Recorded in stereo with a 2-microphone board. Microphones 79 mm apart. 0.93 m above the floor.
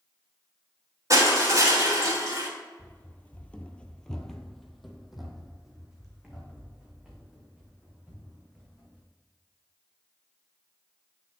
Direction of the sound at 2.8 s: 20° left (ahead or behind).